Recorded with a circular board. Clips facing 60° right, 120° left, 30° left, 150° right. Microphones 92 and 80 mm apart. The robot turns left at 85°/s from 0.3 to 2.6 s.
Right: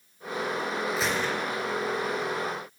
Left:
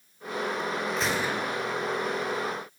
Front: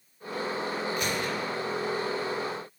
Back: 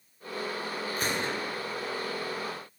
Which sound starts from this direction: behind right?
A gunshot, at 1.0 s.